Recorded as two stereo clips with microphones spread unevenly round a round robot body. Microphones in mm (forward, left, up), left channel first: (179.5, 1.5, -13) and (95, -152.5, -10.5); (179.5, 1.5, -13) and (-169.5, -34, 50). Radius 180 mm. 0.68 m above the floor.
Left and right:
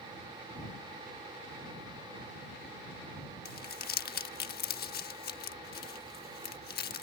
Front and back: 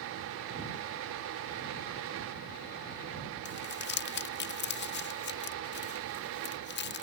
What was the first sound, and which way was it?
Crumpling, 55° left.